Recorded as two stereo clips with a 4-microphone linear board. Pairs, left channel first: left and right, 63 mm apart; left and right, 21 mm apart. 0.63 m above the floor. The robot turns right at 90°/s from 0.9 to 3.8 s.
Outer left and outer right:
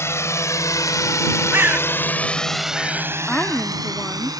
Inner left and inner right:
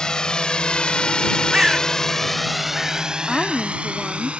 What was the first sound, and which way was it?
A drone, 45° left (ahead or behind).